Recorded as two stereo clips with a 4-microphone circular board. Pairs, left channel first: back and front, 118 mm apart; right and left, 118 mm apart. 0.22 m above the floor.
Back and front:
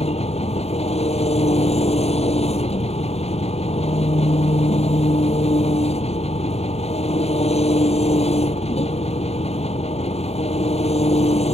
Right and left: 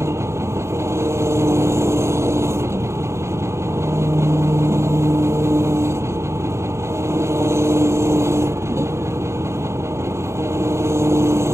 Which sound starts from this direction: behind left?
An engine running, at 0.0 s.